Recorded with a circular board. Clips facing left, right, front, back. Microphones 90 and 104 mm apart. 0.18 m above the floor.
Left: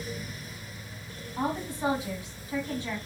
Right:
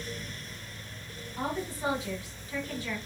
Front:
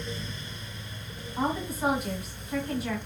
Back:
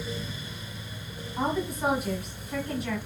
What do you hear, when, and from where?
1.4 s a woman speaking: 85° left, 1.6 m